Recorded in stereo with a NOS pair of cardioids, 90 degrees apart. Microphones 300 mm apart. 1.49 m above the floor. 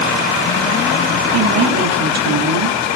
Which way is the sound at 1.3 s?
60° right.